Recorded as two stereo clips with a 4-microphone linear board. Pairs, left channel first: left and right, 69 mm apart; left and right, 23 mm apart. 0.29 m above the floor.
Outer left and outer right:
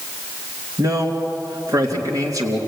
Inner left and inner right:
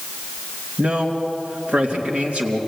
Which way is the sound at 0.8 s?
55° right (ahead or behind).